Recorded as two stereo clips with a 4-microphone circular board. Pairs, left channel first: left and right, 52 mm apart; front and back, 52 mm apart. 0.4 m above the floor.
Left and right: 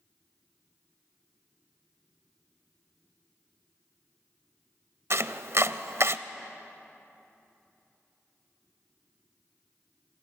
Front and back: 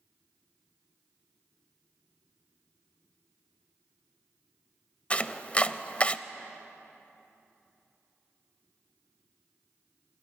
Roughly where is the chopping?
Ahead right.